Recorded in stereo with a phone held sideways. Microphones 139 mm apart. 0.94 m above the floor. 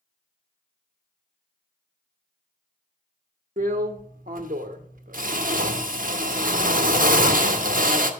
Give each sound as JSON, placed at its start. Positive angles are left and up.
{"t": 3.6, "sound": "a drill", "side_deg": -65, "distance_m": 1.1}